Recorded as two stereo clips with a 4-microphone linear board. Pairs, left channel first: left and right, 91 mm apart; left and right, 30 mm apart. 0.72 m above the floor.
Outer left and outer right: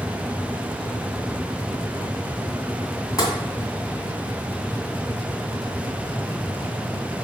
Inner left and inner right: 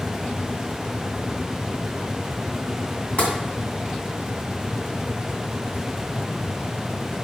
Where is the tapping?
40° left (ahead or behind), 2.5 m.